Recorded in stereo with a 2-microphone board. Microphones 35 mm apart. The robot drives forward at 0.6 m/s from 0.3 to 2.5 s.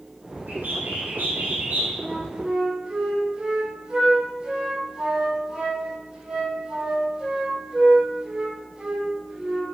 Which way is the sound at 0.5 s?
75° right (ahead or behind).